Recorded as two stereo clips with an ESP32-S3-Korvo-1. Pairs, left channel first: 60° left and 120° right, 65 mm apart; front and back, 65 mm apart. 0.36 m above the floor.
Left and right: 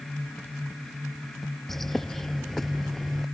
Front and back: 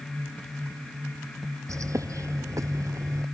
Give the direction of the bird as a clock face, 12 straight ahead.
7 o'clock.